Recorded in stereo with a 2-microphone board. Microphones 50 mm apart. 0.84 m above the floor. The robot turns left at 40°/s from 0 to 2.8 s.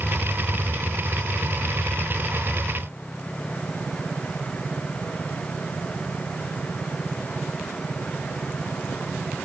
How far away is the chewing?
No chewing in this recording.